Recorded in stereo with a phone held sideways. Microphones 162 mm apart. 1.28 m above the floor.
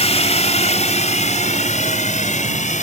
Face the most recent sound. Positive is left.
turn(degrees=50)  # may be behind; listen again after turning